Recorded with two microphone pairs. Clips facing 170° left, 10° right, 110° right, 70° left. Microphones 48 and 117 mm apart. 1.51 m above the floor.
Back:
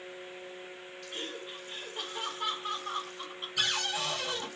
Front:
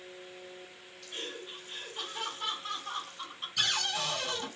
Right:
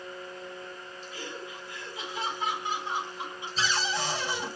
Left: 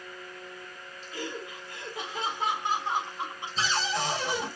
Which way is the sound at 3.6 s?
95° left.